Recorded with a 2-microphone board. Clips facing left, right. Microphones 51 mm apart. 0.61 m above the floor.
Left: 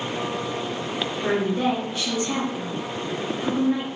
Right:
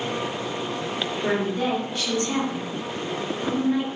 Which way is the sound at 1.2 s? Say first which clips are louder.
Left 2 dB; 10° left (ahead or behind).